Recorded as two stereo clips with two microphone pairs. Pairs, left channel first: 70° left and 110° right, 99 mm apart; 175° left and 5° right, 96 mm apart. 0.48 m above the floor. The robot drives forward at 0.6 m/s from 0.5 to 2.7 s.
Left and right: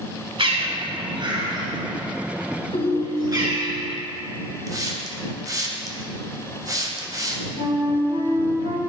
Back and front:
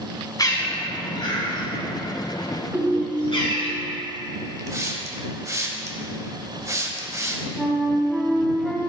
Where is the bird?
135° right, 1.3 m; by 3.7 s 160° right, 2.5 m.